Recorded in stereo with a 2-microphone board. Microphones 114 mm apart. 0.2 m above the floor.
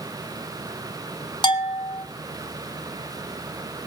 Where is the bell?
45° left (ahead or behind), 0.8 m.